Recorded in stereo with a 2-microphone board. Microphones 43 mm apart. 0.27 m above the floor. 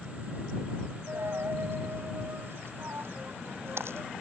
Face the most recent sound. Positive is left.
turn(degrees=-80)